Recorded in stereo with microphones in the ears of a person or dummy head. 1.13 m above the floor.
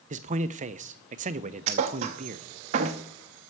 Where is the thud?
35° right (ahead or behind), 0.7 m.